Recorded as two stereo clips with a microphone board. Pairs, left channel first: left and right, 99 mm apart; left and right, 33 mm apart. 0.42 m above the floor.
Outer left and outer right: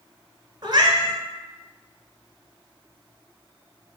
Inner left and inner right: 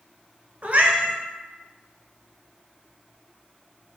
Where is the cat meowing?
50° right (ahead or behind), 0.5 m.